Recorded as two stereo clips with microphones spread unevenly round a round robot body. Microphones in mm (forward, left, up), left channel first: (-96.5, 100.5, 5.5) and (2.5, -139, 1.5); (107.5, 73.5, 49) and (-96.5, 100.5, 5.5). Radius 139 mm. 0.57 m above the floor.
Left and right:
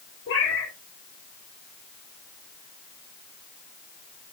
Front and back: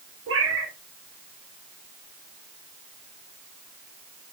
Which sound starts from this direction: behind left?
A cat meowing, at 0.3 s.